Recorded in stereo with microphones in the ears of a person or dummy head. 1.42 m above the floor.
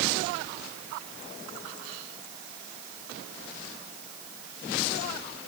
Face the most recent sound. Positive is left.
No sound to turn to.